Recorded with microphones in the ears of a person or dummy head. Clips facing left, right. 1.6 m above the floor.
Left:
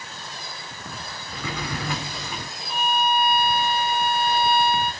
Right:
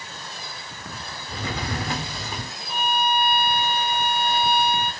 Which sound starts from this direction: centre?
A violin, at 2.7 s.